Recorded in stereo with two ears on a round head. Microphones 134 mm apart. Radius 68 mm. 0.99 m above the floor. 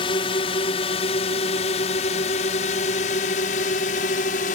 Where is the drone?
35° left (ahead or behind); by 4.5 s 55° left (ahead or behind).